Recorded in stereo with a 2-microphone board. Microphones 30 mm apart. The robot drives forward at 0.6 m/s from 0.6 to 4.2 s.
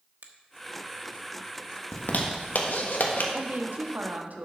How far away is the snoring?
I don't hear snoring.